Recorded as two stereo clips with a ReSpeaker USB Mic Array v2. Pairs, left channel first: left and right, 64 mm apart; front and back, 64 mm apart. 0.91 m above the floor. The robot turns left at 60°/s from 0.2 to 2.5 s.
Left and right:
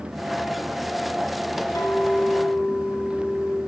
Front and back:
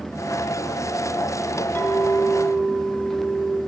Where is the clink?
65° left, 1.6 m; by 3.6 s 20° left, 1.6 m.